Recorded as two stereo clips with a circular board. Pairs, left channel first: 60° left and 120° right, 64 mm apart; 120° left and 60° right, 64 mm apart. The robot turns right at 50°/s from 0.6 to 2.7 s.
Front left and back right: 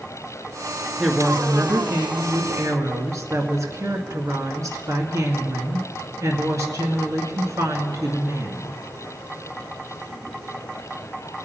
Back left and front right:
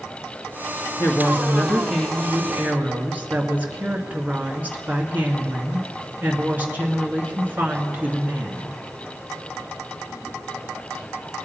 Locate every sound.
1.0 s a woman speaking: 155° left, 2.0 m; by 8.7 s 120° right, 2.0 m